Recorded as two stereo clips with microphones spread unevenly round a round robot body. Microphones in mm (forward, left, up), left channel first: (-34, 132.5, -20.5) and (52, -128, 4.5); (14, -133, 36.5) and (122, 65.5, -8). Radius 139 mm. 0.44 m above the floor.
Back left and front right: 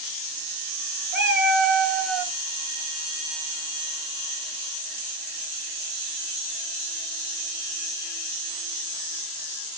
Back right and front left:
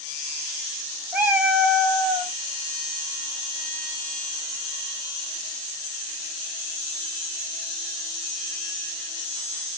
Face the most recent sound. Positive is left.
turn(degrees=-20)